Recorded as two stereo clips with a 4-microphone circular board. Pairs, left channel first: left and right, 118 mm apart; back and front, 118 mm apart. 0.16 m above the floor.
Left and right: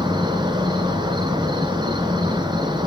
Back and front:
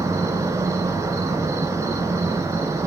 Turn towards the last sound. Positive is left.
turn(degrees=-55)